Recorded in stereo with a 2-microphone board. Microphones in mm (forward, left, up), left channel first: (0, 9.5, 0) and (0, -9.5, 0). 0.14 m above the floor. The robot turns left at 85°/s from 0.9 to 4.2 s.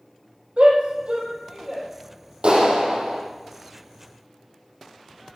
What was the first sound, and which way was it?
A shout, 70° right (ahead or behind).